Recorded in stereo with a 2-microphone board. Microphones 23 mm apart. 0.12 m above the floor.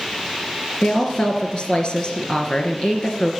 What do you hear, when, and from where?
0.8 s a woman speaking: 45° left (ahead or behind), 1.8 m